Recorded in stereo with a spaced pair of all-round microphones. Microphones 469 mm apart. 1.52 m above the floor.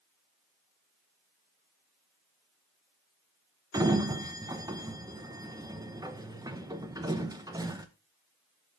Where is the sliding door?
10° right (ahead or behind), 0.8 m.